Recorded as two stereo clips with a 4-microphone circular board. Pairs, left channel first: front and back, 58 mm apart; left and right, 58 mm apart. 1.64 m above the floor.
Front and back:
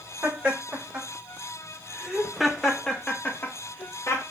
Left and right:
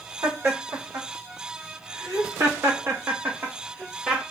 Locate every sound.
0.2 s laughter: 120° right, 1.8 m; by 4.2 s 10° right, 0.8 m